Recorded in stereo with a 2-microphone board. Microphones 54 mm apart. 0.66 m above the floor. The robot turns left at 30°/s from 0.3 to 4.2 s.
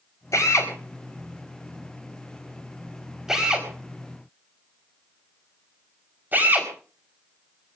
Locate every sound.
0.3 s a drill: 75° left (ahead or behind), 4.5 m; by 6.7 s 35° right (ahead or behind), 4.5 m